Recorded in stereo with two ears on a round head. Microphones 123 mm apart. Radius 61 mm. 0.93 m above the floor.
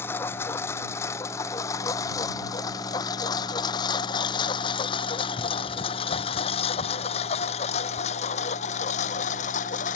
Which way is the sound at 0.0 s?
15° left (ahead or behind).